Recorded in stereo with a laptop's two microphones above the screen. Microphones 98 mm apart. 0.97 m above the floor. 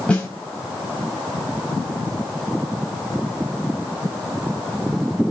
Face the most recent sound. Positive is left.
turn(degrees=10)  # may be behind; listen again after turning